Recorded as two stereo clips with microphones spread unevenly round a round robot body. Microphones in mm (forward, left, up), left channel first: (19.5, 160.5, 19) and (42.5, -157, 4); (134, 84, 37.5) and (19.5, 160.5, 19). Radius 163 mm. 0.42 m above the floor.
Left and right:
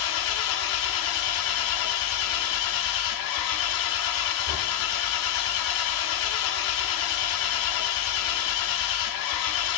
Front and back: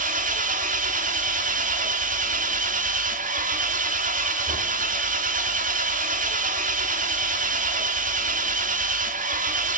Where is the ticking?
No ticking in this recording.